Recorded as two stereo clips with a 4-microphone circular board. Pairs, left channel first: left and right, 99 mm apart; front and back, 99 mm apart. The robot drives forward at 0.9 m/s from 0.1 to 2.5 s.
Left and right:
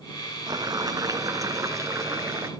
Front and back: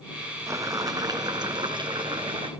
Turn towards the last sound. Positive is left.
turn(degrees=-150)